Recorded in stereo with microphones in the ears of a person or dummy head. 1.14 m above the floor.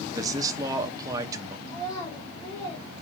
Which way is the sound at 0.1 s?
15° right (ahead or behind).